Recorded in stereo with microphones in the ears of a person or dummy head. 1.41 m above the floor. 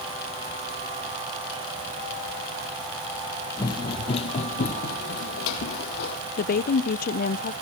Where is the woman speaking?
55° left (ahead or behind), 0.7 m.